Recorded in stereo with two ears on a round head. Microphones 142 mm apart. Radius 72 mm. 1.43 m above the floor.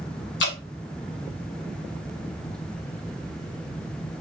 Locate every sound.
0.4 s dripping: 80° left, 1.7 m